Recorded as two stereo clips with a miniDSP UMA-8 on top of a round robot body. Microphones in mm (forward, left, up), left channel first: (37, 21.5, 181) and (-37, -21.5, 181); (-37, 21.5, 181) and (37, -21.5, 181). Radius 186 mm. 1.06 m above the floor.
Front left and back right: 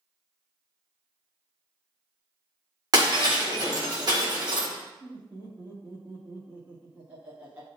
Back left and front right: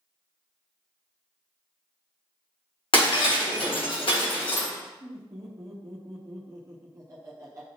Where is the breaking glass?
165° left, 1.5 m.